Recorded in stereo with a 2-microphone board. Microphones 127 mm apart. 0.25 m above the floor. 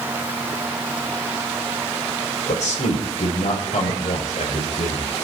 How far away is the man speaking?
About 6 m.